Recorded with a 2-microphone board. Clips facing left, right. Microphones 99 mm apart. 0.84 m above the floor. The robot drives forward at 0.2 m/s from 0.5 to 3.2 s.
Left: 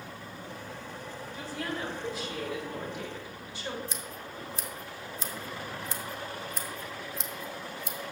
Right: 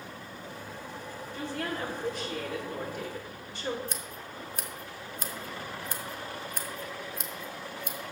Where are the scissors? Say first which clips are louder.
Even; 55° right (ahead or behind), 1.1 m.